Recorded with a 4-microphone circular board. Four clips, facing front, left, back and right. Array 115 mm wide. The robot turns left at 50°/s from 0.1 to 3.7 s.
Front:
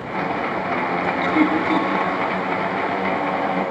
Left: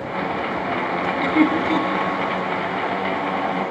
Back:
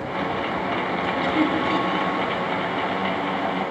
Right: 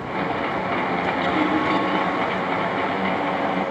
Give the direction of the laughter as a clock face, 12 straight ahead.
10 o'clock.